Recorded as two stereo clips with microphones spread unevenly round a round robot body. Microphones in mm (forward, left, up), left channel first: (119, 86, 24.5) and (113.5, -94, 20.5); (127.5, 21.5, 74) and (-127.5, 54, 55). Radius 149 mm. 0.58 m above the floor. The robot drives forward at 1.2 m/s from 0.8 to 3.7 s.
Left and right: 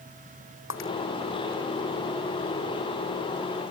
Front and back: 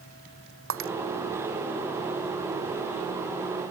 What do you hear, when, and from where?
0.7 s breaking glass: 135° left